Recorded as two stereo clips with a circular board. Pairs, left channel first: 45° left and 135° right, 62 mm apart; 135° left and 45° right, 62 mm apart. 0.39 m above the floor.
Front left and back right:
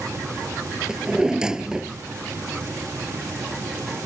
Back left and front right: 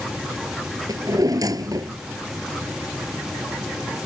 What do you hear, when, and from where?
0.9 s a drawer: 55° right